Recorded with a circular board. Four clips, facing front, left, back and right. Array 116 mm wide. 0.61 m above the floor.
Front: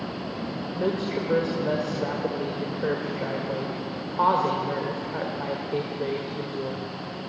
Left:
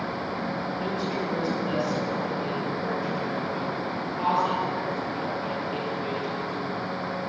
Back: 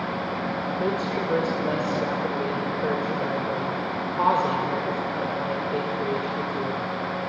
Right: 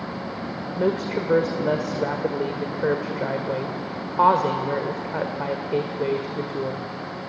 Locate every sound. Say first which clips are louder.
0.8 s a woman speaking: right 10 dB, front 2 dB; 85° right, 1.7 m